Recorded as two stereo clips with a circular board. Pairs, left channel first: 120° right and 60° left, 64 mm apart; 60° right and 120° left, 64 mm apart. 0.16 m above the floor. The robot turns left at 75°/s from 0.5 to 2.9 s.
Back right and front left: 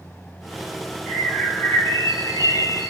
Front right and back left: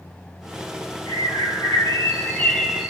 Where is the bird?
25° right, 0.6 m; by 2.9 s 160° right, 0.6 m.